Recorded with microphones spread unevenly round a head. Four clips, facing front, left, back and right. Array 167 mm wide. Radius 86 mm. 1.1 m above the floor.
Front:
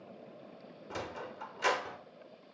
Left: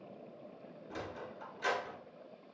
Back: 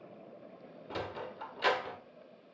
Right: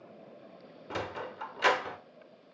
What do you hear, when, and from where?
0.9 s a sliding door: 100° right, 1.0 m